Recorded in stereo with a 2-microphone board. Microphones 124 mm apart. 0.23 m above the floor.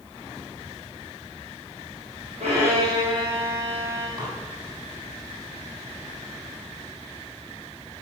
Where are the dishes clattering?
30° right (ahead or behind), 6 m.